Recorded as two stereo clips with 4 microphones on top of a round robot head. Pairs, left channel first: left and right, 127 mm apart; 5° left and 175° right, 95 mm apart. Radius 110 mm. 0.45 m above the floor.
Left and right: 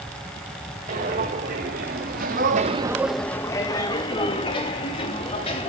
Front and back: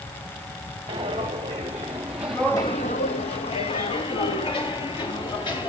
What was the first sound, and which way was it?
Footsteps, 115° right.